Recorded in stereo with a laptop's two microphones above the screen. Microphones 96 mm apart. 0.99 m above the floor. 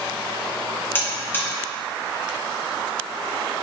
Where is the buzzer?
20° left (ahead or behind), 0.8 m.